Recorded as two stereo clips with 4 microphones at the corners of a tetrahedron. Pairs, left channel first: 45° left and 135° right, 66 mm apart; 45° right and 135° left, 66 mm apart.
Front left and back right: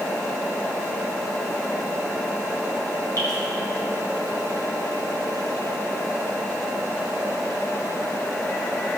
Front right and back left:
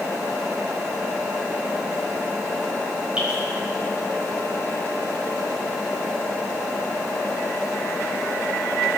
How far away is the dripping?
About 6 m.